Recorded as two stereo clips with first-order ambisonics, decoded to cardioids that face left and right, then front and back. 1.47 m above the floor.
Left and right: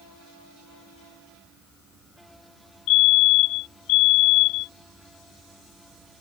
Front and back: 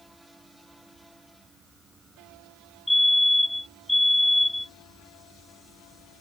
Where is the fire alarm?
85° left.